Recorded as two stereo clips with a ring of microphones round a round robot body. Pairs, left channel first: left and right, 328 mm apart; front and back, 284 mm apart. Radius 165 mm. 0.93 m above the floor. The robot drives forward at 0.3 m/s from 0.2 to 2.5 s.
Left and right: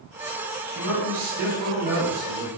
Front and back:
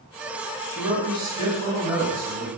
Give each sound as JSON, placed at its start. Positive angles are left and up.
{"t": 0.7, "sound": "a man speaking", "azimuth_deg": -95, "distance_m": 1.4}